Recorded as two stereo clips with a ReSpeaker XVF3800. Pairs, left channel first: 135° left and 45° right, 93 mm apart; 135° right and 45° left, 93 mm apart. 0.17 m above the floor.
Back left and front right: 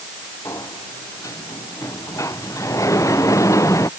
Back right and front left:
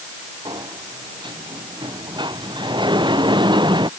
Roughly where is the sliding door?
Left.